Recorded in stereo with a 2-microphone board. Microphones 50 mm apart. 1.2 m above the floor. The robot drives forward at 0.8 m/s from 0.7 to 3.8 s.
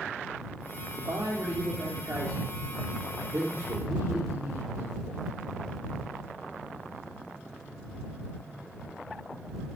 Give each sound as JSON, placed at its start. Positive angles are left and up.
{"t": 1.0, "sound": "a man speaking", "side_deg": -85, "distance_m": 3.0}